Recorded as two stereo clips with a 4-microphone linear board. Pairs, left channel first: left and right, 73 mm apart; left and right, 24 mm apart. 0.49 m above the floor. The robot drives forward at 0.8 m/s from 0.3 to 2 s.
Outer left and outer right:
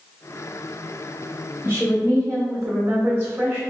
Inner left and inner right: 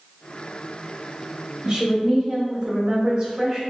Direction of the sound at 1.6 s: 35° right (ahead or behind).